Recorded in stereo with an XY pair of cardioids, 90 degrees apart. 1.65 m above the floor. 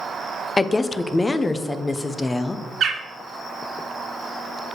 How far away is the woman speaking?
About 0.9 m.